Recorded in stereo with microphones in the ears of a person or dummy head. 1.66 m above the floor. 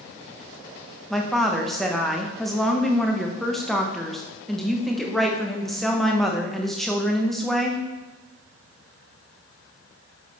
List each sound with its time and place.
1.1 s a woman speaking: 5° right (ahead or behind), 0.8 m